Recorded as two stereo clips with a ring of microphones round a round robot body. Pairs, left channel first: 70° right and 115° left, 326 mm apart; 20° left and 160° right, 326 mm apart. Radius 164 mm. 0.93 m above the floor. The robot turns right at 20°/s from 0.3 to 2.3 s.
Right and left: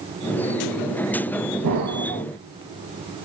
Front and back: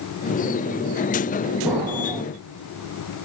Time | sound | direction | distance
1.6 | an explosion | 115° left | 1.2 m